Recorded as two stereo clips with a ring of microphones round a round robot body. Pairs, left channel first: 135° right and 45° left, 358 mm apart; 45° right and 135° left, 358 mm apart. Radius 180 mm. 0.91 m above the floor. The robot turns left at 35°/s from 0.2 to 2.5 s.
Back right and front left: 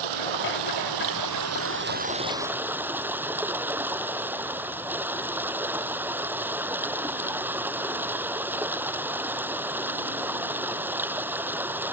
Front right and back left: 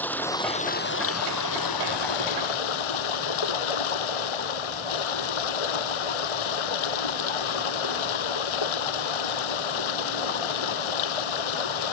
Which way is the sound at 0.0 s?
40° left.